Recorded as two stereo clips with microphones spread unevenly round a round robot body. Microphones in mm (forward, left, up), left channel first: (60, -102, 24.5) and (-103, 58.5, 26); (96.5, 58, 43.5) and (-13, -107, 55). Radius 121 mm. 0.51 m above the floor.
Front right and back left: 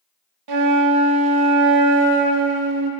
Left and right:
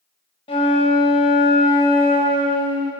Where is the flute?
125° left, 0.6 m.